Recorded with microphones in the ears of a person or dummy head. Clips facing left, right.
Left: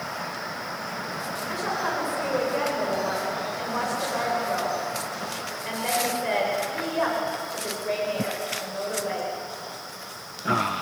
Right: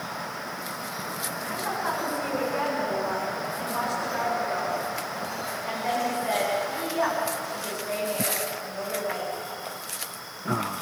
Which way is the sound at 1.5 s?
45° left (ahead or behind).